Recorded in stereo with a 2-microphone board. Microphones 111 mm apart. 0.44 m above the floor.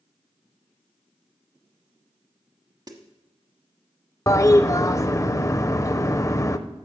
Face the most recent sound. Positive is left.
turn(degrees=30)  # may be behind; listen again after turning